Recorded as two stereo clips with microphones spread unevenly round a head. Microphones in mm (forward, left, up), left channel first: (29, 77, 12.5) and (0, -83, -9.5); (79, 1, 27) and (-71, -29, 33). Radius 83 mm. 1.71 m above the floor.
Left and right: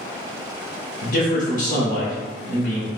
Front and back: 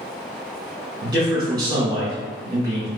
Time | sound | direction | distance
1.0 | a man speaking | 125° left | 1.8 m